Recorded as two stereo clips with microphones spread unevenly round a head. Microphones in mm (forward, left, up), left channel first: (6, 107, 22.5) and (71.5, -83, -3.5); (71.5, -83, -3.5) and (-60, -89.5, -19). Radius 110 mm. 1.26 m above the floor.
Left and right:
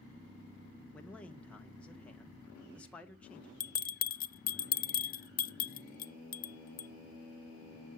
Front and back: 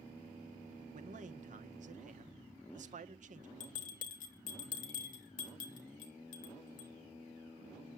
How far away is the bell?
About 0.8 m.